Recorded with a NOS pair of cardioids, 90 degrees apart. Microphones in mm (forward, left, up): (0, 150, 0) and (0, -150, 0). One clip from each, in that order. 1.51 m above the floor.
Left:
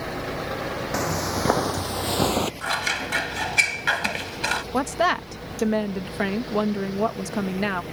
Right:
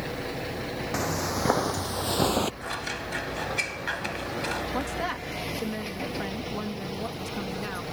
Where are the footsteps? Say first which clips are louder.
Left 2 dB; 20° left; by 2.5 s 15° left.